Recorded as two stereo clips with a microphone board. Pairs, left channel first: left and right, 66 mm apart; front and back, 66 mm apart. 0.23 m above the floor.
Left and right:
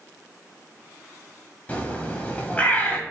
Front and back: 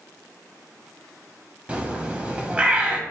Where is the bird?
130° left, 0.8 m.